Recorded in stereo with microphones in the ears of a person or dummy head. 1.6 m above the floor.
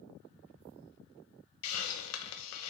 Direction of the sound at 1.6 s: 80° left.